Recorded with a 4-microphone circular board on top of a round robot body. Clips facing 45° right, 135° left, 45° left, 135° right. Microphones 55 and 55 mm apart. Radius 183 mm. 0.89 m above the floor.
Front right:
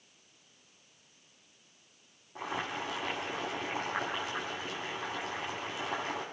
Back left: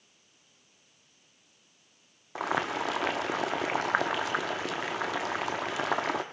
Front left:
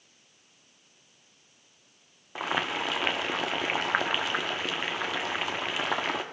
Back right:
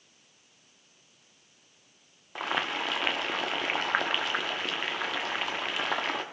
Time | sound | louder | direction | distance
2.4 | boiling | back left 7 dB, front left 1 dB | 130° left | 1.1 m